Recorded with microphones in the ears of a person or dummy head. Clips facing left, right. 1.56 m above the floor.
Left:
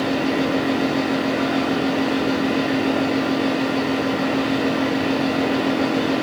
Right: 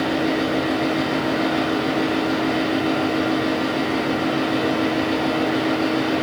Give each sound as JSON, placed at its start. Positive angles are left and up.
{"t": 0.0, "sound": "a fan", "side_deg": 70, "distance_m": 4.0}